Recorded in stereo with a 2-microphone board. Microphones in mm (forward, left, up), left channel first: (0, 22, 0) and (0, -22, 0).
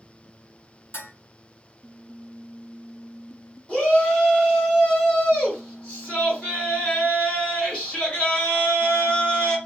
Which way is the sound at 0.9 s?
60° left (ahead or behind).